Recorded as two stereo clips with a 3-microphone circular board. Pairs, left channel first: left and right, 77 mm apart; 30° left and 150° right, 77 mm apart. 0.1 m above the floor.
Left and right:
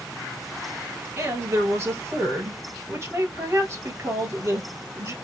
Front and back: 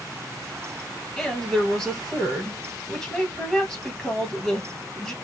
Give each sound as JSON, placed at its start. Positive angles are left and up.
{"t": 1.2, "sound": "a woman speaking", "azimuth_deg": -45, "distance_m": 1.8}